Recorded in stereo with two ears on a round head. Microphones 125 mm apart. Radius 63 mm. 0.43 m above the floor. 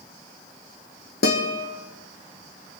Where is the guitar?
80° left, 3.5 m.